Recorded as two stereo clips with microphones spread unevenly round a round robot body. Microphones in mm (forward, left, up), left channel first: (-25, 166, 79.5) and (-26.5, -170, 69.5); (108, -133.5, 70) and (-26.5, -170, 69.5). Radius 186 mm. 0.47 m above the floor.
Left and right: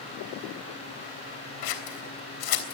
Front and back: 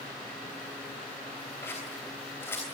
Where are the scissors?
95° left, 3.5 m.